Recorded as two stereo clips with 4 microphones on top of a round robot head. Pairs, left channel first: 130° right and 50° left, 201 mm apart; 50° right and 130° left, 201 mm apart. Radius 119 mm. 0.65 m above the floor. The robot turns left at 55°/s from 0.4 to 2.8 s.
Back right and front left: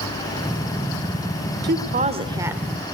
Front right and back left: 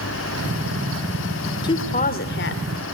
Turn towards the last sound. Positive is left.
turn(degrees=-45)